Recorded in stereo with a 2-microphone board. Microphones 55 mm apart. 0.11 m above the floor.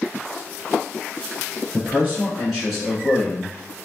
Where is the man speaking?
20° right (ahead or behind), 1.9 m; by 3.5 s 15° left (ahead or behind), 1.7 m.